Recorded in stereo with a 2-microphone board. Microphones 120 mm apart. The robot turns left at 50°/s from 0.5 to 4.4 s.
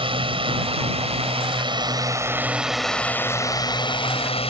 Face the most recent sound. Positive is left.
turn(degrees=100)